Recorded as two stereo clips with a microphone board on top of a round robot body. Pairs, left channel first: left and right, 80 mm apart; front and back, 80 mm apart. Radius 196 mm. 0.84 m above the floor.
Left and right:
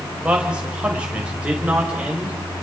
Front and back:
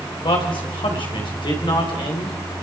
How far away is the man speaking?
About 4 m.